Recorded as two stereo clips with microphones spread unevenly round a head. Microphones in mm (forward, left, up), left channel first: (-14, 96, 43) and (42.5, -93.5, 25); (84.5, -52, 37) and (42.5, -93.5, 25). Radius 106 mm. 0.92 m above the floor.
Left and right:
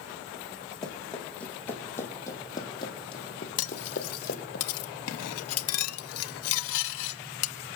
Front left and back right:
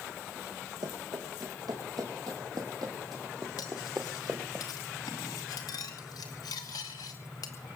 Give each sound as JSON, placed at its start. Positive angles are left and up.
{"t": 0.8, "sound": "running footsteps", "azimuth_deg": -165, "distance_m": 3.5}
{"t": 3.6, "sound": "cutlery clinking", "azimuth_deg": 100, "distance_m": 0.8}